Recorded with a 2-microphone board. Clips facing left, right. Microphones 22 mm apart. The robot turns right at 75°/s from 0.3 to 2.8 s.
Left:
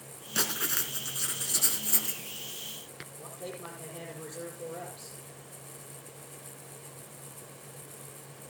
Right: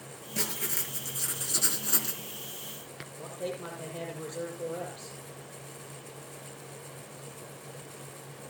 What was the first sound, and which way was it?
Writing, 95° left.